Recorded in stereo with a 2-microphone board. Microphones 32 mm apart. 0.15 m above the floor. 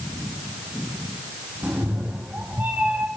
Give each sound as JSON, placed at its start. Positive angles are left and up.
{"t": 1.6, "sound": "a cat meowing", "side_deg": -45, "distance_m": 4.5}